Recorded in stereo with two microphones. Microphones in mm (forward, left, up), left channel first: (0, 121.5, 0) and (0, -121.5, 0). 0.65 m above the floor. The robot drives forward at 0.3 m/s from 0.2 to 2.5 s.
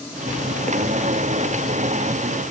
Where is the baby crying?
No baby crying in this recording.